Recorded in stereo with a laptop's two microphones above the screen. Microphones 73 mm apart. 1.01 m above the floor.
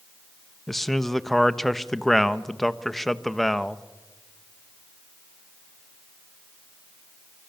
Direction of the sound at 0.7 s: 5° left (ahead or behind).